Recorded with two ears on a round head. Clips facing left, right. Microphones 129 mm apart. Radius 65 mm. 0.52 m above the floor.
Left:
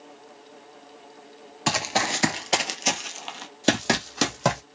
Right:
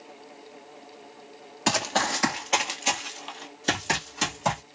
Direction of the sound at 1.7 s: Centre (ahead or behind).